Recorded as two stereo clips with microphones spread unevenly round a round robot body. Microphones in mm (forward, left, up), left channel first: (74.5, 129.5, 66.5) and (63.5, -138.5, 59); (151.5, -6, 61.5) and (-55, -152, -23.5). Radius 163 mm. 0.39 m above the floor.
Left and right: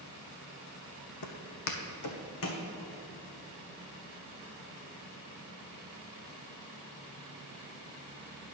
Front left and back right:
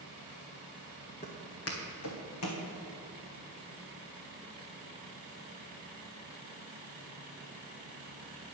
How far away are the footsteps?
About 1.1 m.